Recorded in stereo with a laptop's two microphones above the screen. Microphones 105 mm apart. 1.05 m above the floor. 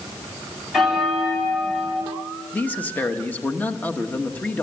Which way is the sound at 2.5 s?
15° left (ahead or behind).